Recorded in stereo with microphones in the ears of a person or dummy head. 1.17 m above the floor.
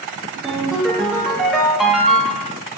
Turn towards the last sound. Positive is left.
turn(degrees=0)  # may be behind; listen again after turning